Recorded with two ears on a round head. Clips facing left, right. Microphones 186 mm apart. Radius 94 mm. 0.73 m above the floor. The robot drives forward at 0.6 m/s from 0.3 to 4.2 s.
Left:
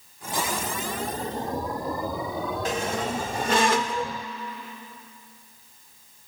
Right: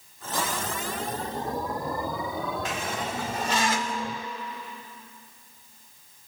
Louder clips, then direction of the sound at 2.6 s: Left 4 dB; 35° left (ahead or behind).